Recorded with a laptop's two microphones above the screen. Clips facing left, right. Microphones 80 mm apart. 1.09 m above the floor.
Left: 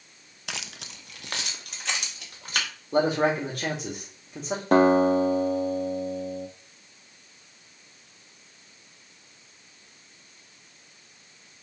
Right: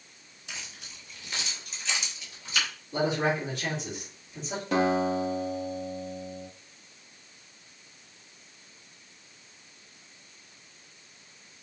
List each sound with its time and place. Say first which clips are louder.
0.5 s keys jangling: left 5 dB; 70° left (ahead or behind), 0.5 m; by 2.7 s 55° left (ahead or behind), 3.5 m
2.9 s a man speaking: left 4 dB; 55° left (ahead or behind), 3 m
4.7 s a guitar: left 7 dB; 45° left (ahead or behind), 0.9 m